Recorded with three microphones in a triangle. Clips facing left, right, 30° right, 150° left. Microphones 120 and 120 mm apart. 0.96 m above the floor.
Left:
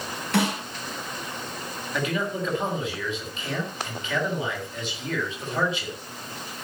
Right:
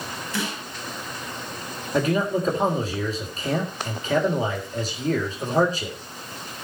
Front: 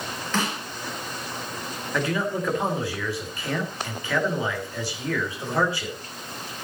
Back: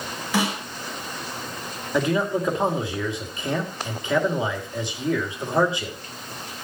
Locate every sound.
0.3 s a snare drum: 70° left, 4 m
1.9 s a man speaking: 140° right, 3 m